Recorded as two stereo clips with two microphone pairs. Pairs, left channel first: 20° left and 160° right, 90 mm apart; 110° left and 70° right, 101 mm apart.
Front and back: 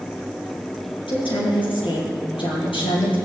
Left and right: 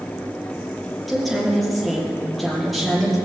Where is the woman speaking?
20° left, 6.5 m.